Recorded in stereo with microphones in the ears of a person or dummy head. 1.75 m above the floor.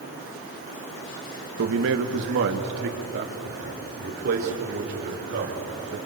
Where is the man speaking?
70° right (ahead or behind), 2 m; by 6.0 s 45° right (ahead or behind), 6.5 m.